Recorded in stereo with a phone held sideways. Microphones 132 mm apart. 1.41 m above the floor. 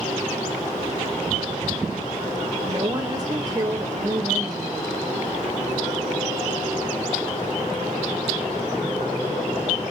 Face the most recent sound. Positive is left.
turn(degrees=-30)  # may be behind; listen again after turning